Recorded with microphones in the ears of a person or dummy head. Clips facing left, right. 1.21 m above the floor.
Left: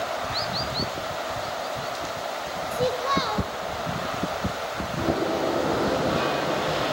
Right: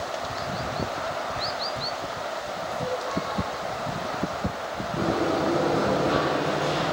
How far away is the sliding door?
About 5 m.